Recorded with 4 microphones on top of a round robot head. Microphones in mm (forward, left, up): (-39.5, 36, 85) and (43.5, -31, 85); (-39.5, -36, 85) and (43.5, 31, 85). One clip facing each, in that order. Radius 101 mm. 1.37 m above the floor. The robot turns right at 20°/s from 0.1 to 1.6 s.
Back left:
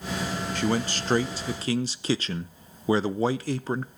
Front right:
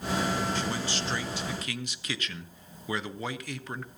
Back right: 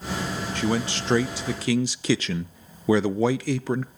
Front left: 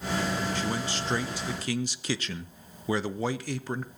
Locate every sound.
0.6 s a man speaking: straight behind, 0.6 m; by 3.9 s 160° right, 0.6 m